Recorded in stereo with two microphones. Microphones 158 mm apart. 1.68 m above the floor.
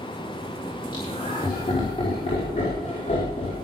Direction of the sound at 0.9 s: 30° left (ahead or behind).